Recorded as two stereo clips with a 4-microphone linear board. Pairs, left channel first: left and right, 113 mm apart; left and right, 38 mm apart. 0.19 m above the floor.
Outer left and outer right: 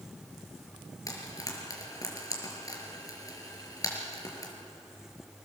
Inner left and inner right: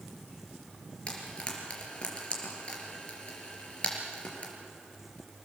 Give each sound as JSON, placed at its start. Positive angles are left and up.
{"t": 1.1, "sound": "frying", "side_deg": 30, "distance_m": 4.5}